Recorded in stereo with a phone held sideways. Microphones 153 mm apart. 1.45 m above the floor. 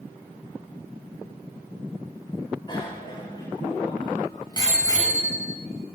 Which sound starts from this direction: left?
A bicycle bell, at 2.7 s.